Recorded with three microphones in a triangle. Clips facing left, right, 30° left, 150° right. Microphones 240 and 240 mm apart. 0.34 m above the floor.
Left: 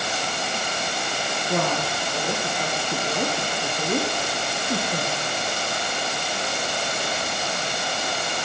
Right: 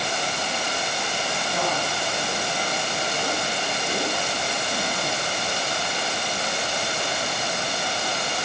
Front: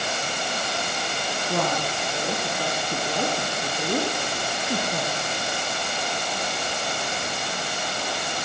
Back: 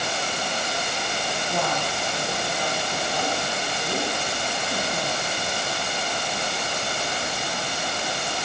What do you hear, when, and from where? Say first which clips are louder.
1.5 s a woman speaking: left 4 dB, front 3 dB; 60° left, 8.5 m